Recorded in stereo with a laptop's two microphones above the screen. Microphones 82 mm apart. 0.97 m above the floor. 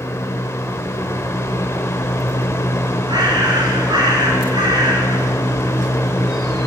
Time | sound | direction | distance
0.0 | a fan | 30° left (ahead or behind) | 1.2 m
3.1 | a bird | 55° right (ahead or behind) | 2.5 m